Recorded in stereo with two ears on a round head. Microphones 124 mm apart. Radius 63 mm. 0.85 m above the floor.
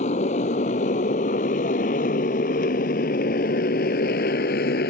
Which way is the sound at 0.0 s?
50° left (ahead or behind).